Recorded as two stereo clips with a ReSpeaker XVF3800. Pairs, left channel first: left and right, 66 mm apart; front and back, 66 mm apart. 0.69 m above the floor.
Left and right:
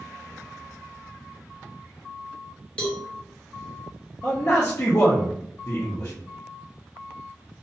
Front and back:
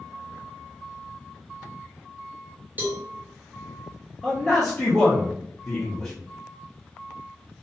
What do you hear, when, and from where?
2.8 s a cowbell: 150° left, 0.7 m
4.2 s a man speaking: 80° left, 0.6 m